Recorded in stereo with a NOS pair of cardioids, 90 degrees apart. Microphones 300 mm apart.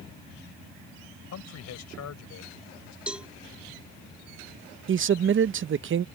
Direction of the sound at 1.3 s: 60° left.